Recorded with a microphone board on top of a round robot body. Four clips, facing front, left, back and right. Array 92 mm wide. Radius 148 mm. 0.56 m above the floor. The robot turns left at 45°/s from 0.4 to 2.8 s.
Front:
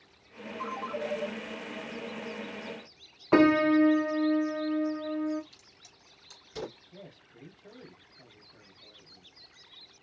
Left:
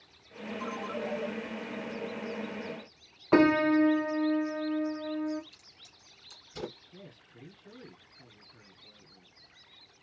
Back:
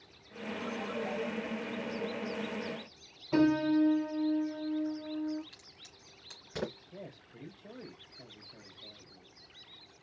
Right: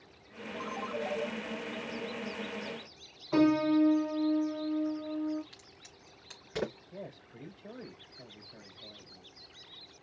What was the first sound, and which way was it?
A ringtone, 25° right.